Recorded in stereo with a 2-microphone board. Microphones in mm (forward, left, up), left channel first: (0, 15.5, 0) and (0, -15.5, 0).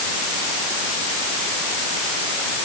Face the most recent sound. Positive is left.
No sound to turn to.